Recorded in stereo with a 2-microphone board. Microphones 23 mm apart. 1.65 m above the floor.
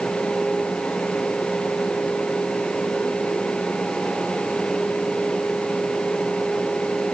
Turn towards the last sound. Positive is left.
No sound to turn to.